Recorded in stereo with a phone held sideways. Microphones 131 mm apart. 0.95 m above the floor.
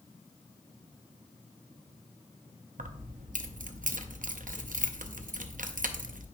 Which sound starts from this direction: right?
Keys jangling, at 2.8 s.